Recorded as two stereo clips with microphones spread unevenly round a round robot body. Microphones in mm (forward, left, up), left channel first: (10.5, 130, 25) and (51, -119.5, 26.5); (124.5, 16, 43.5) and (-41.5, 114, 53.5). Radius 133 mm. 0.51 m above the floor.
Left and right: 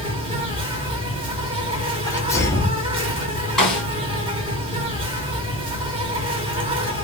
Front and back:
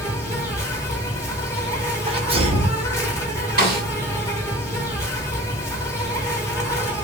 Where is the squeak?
I don't hear a squeak.